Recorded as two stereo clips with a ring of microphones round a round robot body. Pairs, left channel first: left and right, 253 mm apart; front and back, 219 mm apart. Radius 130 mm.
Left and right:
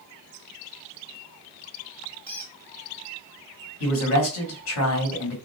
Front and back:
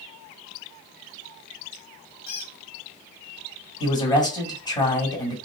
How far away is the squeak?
About 1.2 m.